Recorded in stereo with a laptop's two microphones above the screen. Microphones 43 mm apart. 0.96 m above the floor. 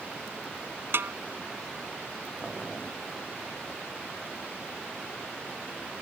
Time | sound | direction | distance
0.9 | a snare drum | 60° right (ahead or behind) | ?
2.4 | boiling | 10° right (ahead or behind) | ?